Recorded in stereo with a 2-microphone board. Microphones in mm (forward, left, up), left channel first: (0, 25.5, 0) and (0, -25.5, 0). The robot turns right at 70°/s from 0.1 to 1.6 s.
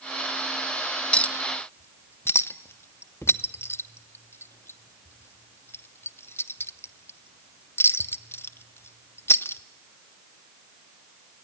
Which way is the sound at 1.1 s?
20° left (ahead or behind).